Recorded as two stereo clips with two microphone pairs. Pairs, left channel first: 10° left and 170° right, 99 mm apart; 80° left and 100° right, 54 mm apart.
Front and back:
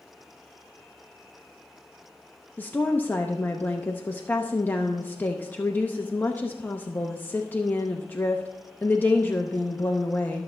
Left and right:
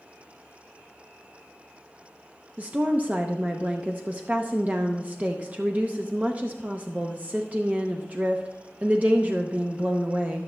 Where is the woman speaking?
55° right, 0.7 m.